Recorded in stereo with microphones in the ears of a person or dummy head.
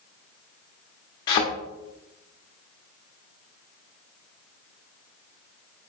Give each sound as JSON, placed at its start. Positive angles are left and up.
{"t": 1.3, "sound": "a thud", "side_deg": 25, "distance_m": 1.0}